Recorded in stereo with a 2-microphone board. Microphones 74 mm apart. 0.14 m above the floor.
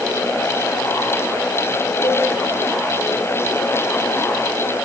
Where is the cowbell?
80° left, 6 m.